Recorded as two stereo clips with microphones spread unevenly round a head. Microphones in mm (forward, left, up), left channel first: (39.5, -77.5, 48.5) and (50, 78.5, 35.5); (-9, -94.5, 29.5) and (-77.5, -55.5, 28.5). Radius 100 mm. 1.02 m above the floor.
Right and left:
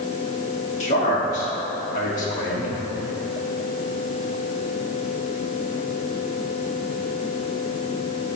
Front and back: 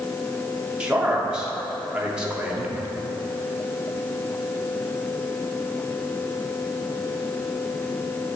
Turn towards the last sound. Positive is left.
turn(degrees=-135)